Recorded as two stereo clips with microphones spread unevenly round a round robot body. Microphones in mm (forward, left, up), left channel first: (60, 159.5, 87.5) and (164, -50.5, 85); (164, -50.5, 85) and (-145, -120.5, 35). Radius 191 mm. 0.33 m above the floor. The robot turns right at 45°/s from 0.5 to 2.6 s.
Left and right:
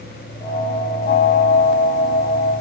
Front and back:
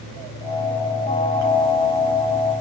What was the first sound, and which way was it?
Only background noise.